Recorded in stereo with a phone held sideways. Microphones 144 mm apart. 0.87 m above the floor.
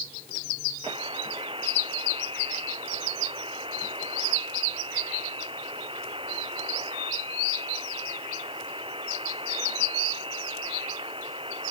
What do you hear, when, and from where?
0.8 s a buzzer: 40° right (ahead or behind)